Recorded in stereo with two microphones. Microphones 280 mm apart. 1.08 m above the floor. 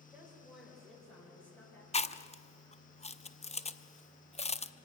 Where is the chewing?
25° left (ahead or behind), 0.6 m.